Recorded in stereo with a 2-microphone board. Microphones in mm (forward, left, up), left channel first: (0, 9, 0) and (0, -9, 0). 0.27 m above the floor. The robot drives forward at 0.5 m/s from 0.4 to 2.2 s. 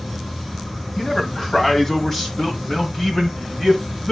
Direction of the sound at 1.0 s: 25° left (ahead or behind).